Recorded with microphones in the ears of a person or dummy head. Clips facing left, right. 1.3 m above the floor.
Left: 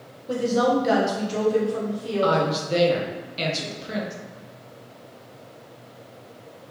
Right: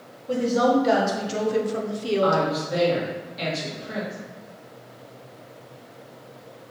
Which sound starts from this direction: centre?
A woman speaking, at 0.3 s.